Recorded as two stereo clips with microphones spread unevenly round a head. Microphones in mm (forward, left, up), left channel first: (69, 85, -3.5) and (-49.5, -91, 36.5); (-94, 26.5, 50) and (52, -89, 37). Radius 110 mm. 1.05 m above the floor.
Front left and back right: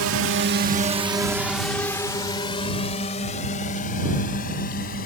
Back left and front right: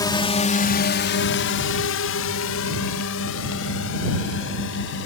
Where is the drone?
150° right; by 5.1 s 110° left.